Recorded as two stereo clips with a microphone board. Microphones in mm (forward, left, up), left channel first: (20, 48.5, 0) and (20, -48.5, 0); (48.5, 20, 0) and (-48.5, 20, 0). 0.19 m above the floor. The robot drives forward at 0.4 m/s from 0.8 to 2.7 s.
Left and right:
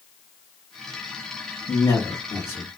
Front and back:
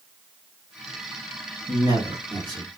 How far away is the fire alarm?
No fire alarm in this recording.